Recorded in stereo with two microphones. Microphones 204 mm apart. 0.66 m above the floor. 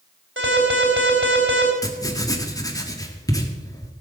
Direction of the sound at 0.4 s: 70° right (ahead or behind).